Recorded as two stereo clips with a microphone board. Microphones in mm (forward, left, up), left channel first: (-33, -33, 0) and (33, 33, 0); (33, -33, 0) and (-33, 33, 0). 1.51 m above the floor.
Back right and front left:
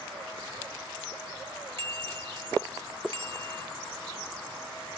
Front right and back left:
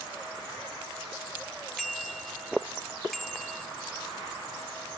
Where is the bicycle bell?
45° left.